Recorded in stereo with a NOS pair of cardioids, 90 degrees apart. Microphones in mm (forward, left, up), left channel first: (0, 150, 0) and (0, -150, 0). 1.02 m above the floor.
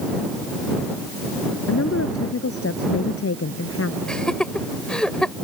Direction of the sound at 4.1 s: 5° left.